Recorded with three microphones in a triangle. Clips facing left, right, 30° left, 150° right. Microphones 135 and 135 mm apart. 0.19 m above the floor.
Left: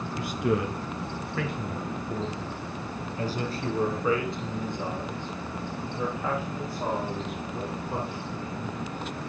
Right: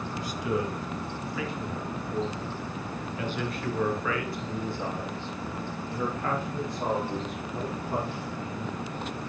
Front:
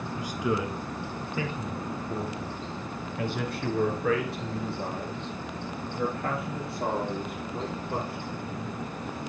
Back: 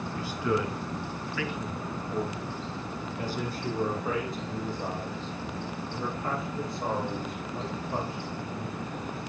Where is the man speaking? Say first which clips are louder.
Left 3 dB, even; 105° left, 2.5 m; by 8.8 s straight ahead, 6.5 m.